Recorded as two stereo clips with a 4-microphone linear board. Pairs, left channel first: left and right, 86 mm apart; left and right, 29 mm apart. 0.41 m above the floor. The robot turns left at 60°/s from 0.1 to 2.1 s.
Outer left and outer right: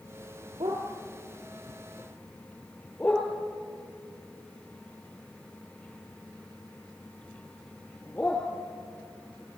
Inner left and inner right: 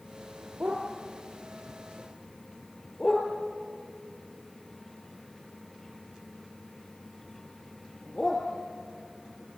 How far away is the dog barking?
About 4.5 m.